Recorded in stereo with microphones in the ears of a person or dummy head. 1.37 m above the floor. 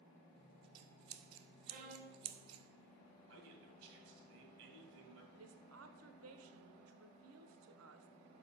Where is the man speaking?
60° right (ahead or behind), 2.5 m.